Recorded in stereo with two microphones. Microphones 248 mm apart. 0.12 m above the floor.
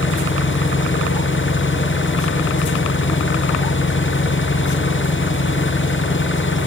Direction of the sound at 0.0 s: 50° left (ahead or behind).